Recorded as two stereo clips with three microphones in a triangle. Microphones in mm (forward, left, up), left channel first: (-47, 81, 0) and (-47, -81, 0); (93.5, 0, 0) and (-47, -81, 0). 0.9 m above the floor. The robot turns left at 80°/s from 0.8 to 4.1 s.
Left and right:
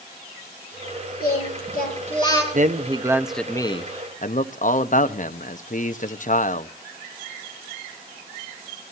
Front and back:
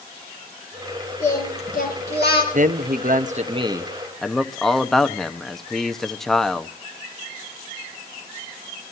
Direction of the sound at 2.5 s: 120° right.